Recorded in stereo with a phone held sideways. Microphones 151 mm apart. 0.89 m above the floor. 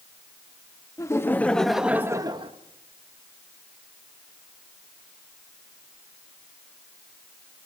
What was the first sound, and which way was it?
Laughter, 20° left (ahead or behind).